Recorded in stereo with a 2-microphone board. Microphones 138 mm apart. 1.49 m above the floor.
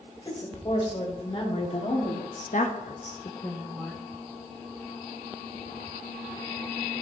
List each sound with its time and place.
0.2 s a woman speaking: 40° left (ahead or behind), 3 m; by 4.0 s 5° right (ahead or behind), 1.1 m